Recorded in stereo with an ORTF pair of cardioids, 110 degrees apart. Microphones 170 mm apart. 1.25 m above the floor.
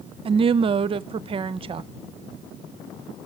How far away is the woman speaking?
About 0.6 m.